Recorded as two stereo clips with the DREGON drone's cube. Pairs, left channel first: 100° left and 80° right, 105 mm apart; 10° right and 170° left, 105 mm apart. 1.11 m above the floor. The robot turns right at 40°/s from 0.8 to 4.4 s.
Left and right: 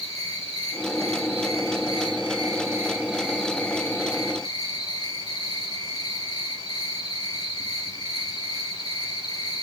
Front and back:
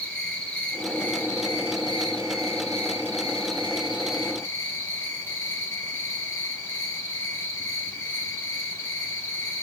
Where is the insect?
95° right, 2.5 m; by 9.6 s 50° left, 2.5 m.